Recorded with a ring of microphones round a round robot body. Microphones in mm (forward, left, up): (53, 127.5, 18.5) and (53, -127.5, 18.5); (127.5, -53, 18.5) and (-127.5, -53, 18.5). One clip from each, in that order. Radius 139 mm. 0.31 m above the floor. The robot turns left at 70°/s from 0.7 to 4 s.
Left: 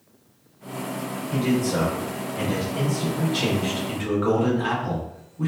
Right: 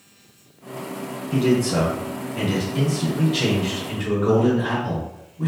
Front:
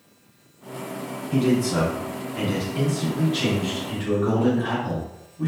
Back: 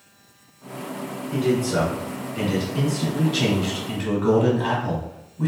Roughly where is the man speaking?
Ahead.